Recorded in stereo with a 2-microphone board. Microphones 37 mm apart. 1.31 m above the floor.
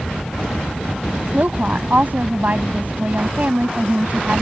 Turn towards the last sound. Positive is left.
turn(degrees=-45)  # may be behind; listen again after turning